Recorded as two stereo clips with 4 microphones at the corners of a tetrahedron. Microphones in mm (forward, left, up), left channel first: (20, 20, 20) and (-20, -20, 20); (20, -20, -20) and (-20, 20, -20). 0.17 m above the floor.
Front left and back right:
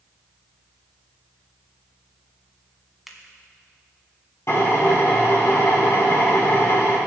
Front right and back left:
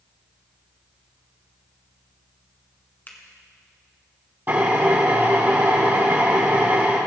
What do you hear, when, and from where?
3.1 s a finger snap: 50° right, 1.6 m
4.5 s a drill: 85° left, 4.5 m